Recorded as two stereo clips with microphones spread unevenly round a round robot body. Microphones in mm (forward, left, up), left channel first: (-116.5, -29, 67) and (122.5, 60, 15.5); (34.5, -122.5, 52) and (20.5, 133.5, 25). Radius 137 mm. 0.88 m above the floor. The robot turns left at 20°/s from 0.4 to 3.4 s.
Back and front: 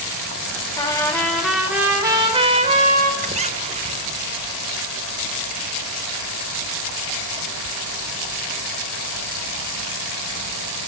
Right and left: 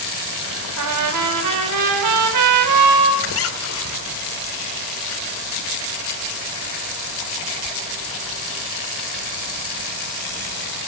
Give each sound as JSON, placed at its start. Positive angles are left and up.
{"t": 0.8, "sound": "a trumpet", "azimuth_deg": 125, "distance_m": 4.5}
{"t": 3.2, "sound": "a squeak", "azimuth_deg": -45, "distance_m": 2.5}